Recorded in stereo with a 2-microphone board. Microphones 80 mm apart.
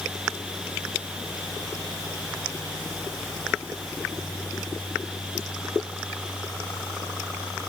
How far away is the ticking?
No ticking in this recording.